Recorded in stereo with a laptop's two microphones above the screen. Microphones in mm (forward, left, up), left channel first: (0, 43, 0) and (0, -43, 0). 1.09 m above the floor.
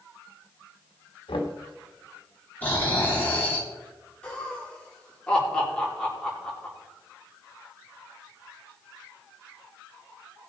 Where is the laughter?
10° left (ahead or behind), 3 m.